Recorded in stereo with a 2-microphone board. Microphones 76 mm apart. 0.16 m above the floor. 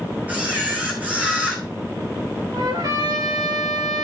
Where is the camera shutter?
20° right (ahead or behind), 3 m.